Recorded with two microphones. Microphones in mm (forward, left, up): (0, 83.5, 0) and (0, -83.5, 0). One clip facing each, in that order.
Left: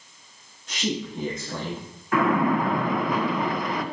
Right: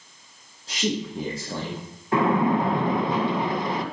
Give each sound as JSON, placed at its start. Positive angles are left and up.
{"t": 0.7, "sound": "a man speaking", "side_deg": -35, "distance_m": 6.0}
{"t": 2.1, "sound": "a splash", "side_deg": -30, "distance_m": 1.6}